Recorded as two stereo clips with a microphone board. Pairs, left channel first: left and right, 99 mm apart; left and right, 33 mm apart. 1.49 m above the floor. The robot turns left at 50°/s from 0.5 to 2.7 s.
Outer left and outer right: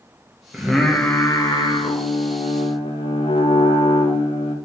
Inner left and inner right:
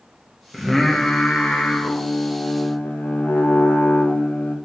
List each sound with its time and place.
0.5 s singing: 170° right, 1.4 m; by 4.5 s 80° left, 1.4 m